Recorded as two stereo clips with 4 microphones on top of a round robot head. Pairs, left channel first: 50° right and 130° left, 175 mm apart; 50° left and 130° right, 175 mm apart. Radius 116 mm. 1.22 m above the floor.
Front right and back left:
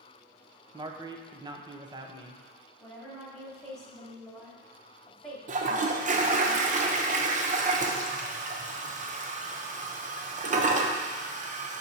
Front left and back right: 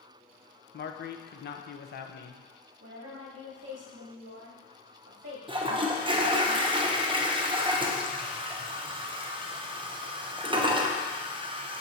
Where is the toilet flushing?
170° left, 0.8 m.